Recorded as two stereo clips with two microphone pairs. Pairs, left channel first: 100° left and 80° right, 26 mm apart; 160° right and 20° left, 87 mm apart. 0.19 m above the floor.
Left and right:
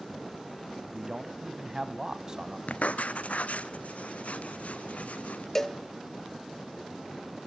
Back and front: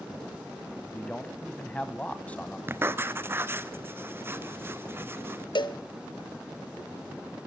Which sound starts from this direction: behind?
A cowbell, at 5.5 s.